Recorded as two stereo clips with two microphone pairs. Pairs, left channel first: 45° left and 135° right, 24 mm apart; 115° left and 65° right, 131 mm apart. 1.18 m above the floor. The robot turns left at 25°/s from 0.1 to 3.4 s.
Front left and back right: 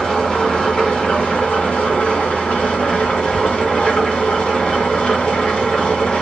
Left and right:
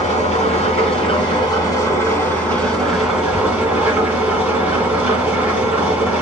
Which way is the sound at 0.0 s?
95° left.